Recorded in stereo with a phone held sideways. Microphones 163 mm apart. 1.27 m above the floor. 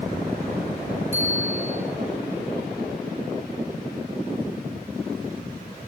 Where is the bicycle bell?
15° right (ahead or behind), 9.5 m.